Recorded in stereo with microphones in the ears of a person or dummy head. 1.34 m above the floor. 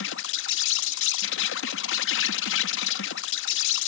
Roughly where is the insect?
Left.